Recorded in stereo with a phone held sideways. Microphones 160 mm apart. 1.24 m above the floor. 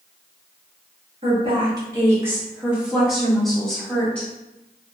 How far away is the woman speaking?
About 1.1 m.